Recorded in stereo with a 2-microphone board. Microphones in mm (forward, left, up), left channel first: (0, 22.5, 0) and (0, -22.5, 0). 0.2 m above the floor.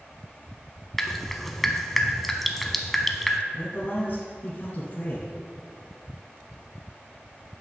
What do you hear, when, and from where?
1.0 s dripping: 5° left (ahead or behind), 0.5 m
3.5 s a man speaking: 40° left (ahead or behind), 1.4 m